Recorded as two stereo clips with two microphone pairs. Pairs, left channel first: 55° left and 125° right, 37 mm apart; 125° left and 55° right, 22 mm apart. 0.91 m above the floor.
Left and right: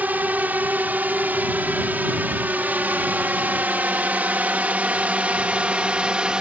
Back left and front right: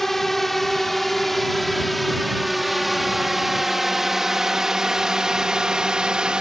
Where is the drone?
155° right; by 6.4 s 70° right.